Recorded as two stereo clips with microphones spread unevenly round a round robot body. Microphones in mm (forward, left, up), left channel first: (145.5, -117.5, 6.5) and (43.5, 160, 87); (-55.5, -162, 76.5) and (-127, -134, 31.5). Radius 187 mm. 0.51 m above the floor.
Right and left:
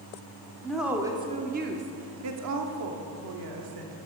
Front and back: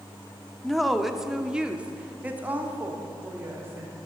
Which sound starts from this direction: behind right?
A woman speaking, at 0.6 s.